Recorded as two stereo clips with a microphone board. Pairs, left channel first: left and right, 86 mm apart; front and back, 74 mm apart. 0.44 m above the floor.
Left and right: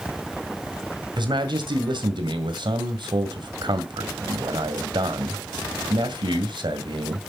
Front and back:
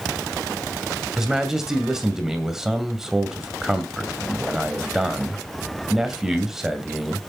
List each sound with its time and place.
1.2 s a man speaking: 95° right, 2 m